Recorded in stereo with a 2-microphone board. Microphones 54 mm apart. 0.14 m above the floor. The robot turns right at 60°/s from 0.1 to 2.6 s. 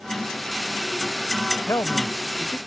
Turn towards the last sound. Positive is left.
turn(degrees=125)